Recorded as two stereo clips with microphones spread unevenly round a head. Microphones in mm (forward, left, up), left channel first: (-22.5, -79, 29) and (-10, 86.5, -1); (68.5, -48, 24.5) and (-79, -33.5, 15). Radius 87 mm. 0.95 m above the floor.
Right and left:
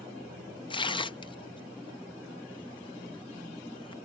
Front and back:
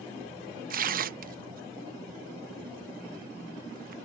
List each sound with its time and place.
0.7 s tearing paper: 160° right